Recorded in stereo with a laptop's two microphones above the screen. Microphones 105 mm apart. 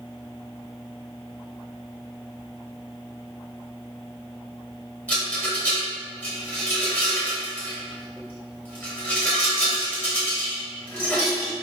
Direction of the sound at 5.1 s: 15° left (ahead or behind).